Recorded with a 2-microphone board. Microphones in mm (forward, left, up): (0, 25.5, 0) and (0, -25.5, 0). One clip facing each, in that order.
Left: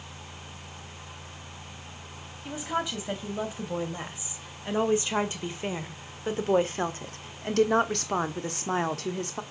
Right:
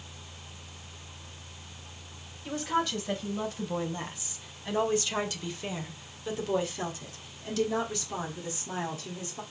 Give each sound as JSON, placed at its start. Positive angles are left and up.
{"t": 2.5, "sound": "a woman speaking", "side_deg": 10, "distance_m": 3.5}